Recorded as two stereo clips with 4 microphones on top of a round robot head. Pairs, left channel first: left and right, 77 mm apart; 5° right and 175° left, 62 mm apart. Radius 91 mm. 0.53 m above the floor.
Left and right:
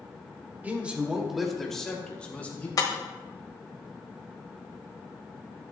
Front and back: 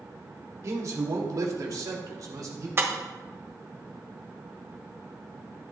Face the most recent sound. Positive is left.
turn(degrees=125)